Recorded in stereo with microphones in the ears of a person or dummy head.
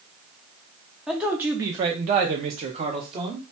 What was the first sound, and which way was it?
A man speaking, centre (ahead or behind).